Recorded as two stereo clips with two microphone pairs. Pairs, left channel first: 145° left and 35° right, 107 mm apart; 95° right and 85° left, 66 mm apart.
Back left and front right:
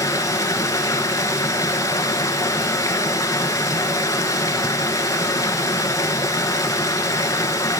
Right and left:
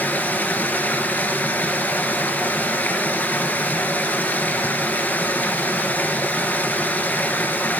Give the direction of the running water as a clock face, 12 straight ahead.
5 o'clock.